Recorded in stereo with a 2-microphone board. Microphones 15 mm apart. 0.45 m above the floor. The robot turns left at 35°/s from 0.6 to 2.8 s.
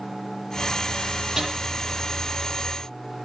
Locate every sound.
1.4 s a snare drum: 25° right (ahead or behind), 8.5 m; by 1.5 s 30° right (ahead or behind), 8.5 m